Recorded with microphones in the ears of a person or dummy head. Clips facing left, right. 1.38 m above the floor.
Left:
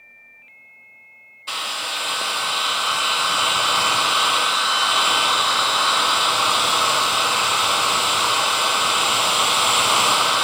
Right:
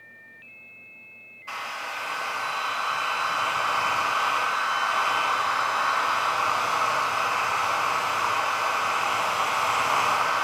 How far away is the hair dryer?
About 0.6 m.